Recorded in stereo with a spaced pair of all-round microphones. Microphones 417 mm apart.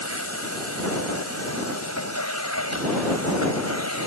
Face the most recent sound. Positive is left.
turn(degrees=40)  # may be behind; listen again after turning